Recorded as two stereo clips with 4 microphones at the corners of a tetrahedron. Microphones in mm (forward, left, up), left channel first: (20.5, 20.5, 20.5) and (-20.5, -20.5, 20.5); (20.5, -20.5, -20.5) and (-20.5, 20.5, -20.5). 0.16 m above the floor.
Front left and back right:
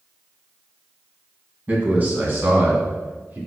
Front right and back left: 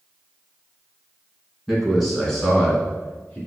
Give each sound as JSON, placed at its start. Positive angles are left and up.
{"t": 1.7, "sound": "a man speaking", "azimuth_deg": -140, "distance_m": 1.7}